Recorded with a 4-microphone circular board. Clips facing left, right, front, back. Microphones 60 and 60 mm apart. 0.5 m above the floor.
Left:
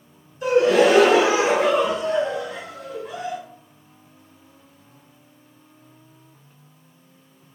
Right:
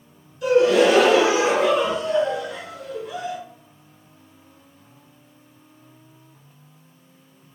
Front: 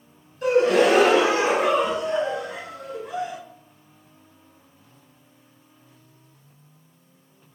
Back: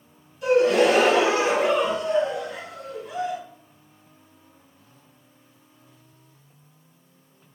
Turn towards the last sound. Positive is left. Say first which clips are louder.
# even, even
turn(degrees=35)